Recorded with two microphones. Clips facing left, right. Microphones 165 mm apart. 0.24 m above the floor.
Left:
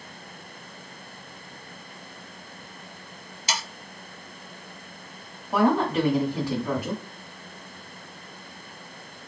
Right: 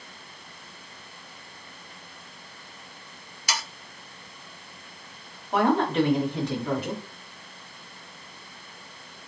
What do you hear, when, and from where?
3.5 s sawing: 25° left (ahead or behind), 0.7 m
5.5 s a woman speaking: 10° left (ahead or behind), 1.4 m